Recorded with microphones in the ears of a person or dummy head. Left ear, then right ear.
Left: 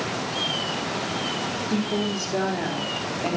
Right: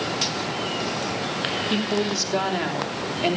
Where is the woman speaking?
50° right (ahead or behind), 3.5 m.